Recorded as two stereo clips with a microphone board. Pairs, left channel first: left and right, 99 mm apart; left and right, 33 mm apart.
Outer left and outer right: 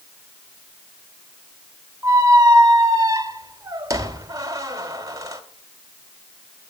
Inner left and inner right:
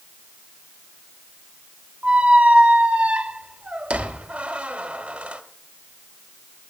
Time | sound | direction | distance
2.0 | a squeak | 35° right (ahead or behind) | 1.2 m